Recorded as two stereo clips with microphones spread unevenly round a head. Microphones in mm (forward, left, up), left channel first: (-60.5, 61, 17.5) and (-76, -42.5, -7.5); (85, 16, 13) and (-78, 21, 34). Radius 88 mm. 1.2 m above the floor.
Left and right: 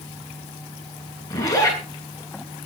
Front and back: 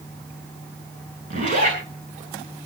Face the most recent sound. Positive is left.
turn(degrees=135)